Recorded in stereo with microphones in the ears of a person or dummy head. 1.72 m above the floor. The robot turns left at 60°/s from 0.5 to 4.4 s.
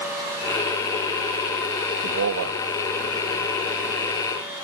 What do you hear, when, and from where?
2.0 s a man speaking: 65° right, 0.6 m; by 2.6 s 100° right, 0.6 m